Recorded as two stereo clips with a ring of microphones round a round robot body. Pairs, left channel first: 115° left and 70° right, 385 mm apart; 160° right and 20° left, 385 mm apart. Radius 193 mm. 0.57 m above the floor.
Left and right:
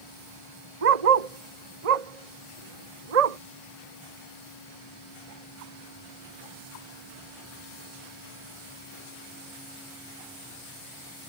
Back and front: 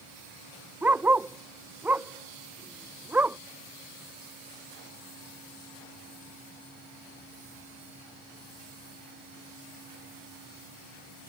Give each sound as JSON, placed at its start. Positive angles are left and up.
{"t": 0.8, "sound": "a dog barking", "azimuth_deg": -65}